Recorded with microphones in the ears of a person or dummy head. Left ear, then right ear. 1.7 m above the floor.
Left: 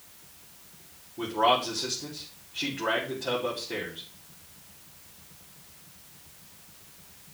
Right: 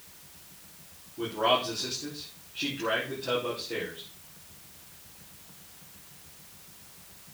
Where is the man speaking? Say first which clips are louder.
Left 2 dB; 30° left (ahead or behind), 5 m.